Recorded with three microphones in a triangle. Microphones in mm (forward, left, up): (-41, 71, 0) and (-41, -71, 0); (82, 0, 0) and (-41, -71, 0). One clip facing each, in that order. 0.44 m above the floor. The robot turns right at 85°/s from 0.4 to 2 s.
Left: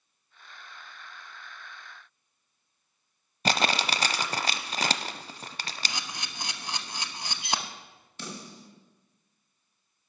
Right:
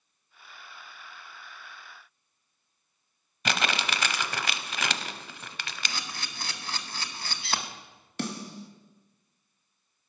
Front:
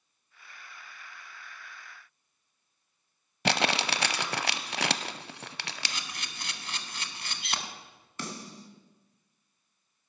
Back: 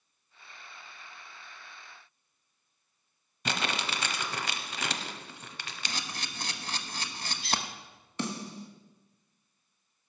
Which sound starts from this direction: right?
A snare drum, at 8.2 s.